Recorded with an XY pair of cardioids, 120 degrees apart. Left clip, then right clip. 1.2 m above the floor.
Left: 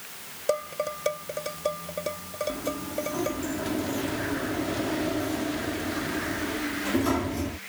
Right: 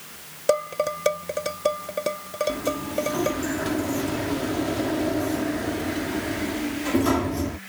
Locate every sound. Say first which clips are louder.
0.5 s dishes clattering: right 5 dB; 35° right
2.5 s a sliding door: right 4 dB; 25° right